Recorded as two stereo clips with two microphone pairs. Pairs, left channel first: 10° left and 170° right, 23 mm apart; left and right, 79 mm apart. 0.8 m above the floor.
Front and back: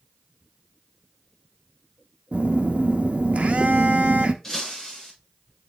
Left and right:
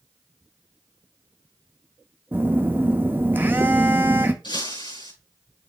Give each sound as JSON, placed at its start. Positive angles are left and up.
{"t": 2.3, "sound": "a phone buzzing", "azimuth_deg": -155, "distance_m": 0.7}
{"t": 4.4, "sound": "breaking glass", "azimuth_deg": 80, "distance_m": 5.5}